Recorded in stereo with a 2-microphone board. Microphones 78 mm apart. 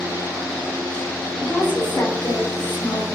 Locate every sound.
1.4 s a woman speaking: 70° left (ahead or behind), 1.4 m; by 3.0 s 60° left (ahead or behind), 0.9 m